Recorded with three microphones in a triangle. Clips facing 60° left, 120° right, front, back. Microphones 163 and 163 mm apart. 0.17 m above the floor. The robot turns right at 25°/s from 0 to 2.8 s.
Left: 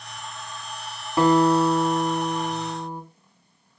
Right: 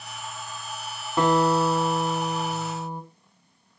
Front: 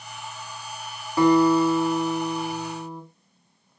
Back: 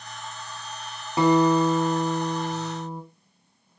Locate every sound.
1.2 s a guitar: 140° left, 1.1 m; by 3.0 s straight behind, 1.1 m